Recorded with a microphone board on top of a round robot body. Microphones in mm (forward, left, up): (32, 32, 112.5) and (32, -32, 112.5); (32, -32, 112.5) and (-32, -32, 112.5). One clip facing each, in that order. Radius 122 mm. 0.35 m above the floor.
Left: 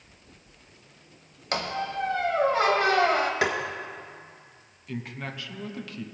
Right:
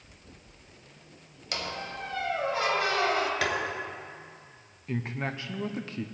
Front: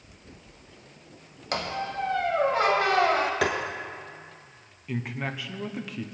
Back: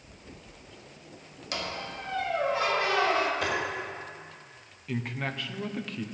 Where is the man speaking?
75° right, 0.8 m.